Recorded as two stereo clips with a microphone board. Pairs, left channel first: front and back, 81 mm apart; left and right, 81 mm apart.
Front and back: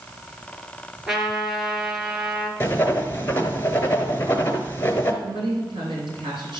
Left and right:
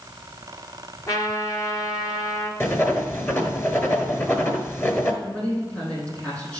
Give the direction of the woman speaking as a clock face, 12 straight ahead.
7 o'clock.